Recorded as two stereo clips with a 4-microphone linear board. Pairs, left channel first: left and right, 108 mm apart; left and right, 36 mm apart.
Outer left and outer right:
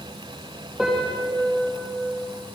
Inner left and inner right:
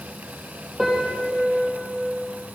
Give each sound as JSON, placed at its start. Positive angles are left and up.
{"t": 0.8, "sound": "a piano", "side_deg": -5, "distance_m": 3.0}